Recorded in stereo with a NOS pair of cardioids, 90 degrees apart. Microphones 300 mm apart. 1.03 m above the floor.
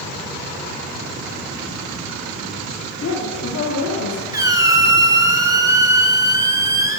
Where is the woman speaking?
60° left, 1.8 m.